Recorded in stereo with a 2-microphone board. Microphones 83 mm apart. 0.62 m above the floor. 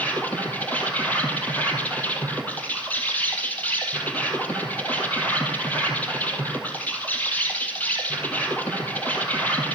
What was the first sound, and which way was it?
An insect, 20° left (ahead or behind).